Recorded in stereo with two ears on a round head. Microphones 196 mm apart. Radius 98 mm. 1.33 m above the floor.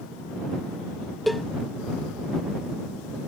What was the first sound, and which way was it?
A cowbell, centre (ahead or behind).